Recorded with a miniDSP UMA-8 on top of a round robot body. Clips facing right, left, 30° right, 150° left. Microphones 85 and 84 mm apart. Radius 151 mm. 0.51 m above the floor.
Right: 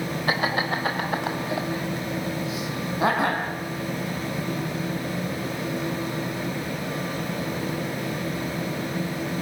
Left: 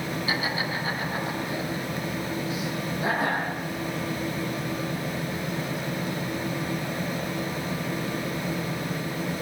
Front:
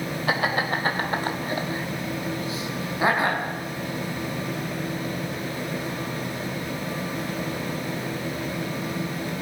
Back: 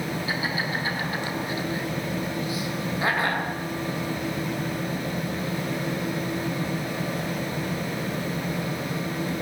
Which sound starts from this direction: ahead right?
Laughter, at 0.3 s.